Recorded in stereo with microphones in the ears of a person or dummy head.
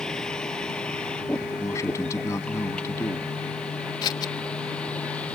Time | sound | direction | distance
0.0 | a vehicle | 5° left (ahead or behind) | ?
1.6 | a man speaking | 20° left (ahead or behind) | ?
4.0 | scissors | 25° left (ahead or behind) | ?